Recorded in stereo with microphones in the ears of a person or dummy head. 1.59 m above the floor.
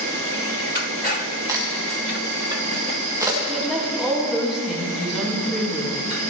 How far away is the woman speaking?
About 1.9 m.